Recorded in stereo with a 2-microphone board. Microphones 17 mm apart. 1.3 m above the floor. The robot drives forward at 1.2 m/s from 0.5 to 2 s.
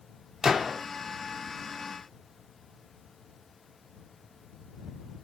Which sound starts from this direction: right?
A gunshot, at 0.4 s.